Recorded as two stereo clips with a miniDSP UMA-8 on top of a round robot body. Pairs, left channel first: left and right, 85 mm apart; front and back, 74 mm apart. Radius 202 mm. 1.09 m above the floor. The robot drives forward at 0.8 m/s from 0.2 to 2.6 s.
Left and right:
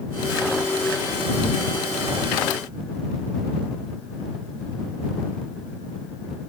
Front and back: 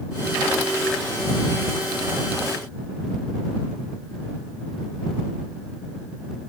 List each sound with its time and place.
Only background noise.